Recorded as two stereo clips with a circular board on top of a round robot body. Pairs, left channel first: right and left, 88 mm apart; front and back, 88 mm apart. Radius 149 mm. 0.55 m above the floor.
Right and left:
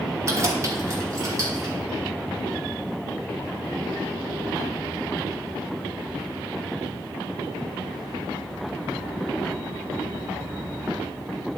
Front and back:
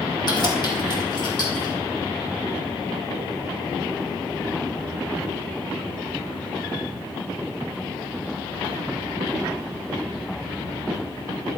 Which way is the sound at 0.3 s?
35° left.